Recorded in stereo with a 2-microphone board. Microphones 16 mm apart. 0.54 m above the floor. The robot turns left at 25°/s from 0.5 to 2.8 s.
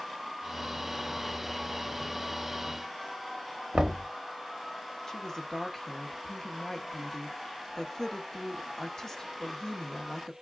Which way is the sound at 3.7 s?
50° right (ahead or behind).